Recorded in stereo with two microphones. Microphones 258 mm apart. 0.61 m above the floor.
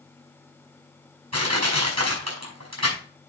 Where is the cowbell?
I don't hear a cowbell.